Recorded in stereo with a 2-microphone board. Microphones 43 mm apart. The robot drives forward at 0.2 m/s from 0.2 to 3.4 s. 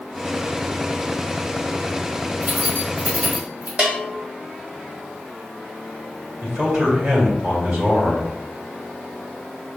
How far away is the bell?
About 0.9 m.